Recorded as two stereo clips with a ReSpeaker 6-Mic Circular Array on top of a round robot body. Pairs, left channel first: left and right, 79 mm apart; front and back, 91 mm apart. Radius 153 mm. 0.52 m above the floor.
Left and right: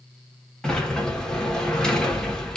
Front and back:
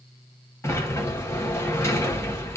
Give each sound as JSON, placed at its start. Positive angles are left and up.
{"t": 0.6, "sound": "a sliding door", "azimuth_deg": 20, "distance_m": 1.2}